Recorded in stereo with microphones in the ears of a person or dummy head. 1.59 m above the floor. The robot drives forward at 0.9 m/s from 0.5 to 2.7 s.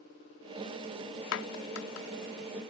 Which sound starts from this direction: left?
A clap, at 1.3 s.